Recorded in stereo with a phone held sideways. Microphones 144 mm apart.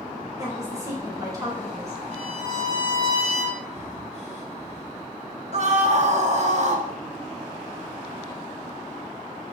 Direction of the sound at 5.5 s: 50° right (ahead or behind).